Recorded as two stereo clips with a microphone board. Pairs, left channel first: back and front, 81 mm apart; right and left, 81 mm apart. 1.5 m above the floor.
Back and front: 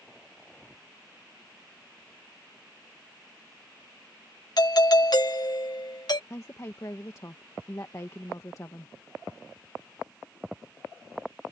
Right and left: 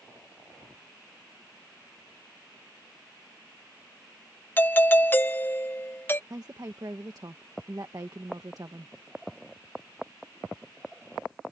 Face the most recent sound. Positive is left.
turn(degrees=130)